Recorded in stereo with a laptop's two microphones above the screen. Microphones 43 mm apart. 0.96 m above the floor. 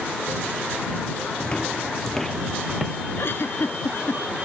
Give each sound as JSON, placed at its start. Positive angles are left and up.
{"t": 1.4, "sound": "footsteps", "side_deg": 20}
{"t": 3.2, "sound": "a giggle", "side_deg": 60}